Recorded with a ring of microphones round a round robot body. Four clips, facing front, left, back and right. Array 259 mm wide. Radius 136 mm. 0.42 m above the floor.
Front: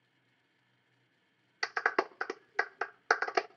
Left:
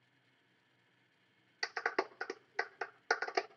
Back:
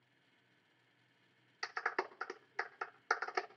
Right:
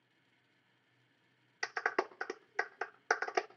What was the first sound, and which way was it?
A clap, 5° right.